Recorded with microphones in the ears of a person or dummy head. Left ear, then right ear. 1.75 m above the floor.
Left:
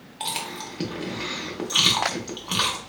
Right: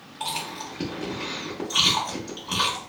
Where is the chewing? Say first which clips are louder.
Even; 25° left (ahead or behind), 0.7 m.